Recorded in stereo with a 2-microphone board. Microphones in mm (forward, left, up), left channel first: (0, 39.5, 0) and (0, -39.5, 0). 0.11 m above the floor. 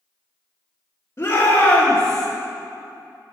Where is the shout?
35° left (ahead or behind), 2 m; by 2.3 s 5° left (ahead or behind), 2 m.